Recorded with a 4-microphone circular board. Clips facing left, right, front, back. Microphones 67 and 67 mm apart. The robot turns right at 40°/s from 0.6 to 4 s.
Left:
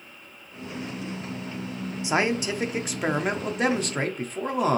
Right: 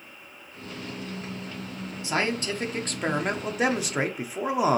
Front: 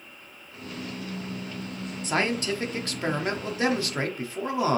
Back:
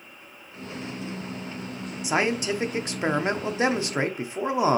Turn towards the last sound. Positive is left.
turn(degrees=-155)